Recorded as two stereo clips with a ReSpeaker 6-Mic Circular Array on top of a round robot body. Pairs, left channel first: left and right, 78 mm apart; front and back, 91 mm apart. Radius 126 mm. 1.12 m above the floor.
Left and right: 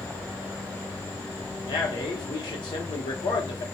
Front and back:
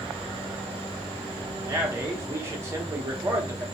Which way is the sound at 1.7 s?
120° left.